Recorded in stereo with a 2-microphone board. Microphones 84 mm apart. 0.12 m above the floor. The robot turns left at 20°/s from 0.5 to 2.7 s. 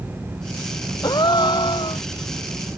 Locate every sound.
1.0 s a gasp: 55° left (ahead or behind); by 2.0 s 75° left (ahead or behind)